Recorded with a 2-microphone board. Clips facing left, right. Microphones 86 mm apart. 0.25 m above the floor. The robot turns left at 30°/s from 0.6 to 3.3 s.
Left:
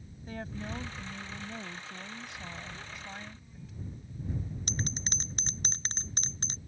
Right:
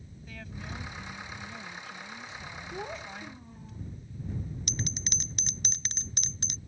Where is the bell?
35° left (ahead or behind).